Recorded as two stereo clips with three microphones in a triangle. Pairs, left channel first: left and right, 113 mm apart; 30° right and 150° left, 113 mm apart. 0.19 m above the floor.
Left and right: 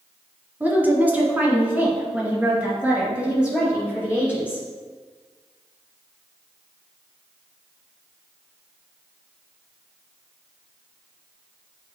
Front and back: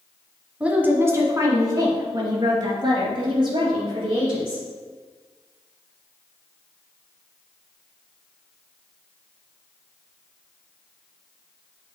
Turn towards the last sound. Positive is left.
turn(degrees=-170)